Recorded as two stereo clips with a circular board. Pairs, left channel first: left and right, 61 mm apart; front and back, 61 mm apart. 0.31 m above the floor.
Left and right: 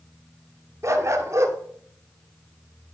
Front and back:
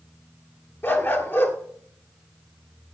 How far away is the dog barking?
About 1.9 m.